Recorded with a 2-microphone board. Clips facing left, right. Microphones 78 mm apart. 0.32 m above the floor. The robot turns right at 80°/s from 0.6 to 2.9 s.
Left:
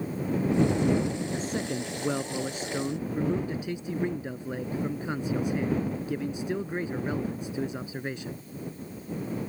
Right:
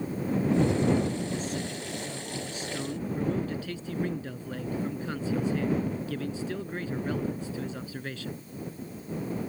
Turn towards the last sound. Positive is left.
turn(degrees=160)